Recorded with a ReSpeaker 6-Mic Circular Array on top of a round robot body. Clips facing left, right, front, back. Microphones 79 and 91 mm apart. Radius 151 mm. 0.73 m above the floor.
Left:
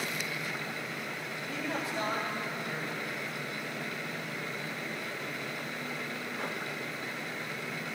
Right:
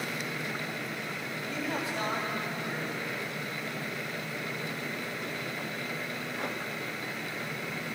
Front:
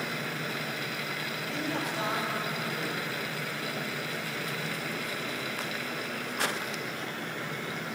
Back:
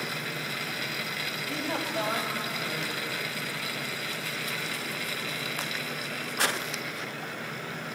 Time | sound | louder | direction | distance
1.5 | a man speaking | right 1 dB, back 1 dB | 150° left | 5 m